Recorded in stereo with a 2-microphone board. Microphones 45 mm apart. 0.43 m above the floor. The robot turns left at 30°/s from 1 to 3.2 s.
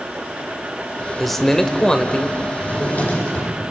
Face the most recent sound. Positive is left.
turn(degrees=30)  # may be behind; listen again after turning